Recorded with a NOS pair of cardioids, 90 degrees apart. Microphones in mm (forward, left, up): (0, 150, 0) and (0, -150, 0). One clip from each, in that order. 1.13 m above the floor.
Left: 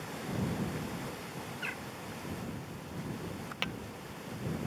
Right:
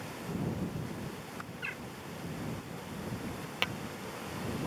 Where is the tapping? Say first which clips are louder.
Right 3 dB; 15° right.